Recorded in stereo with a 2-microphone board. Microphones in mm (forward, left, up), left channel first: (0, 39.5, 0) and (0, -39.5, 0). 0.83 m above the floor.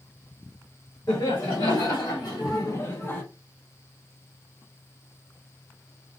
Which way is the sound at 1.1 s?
65° left (ahead or behind).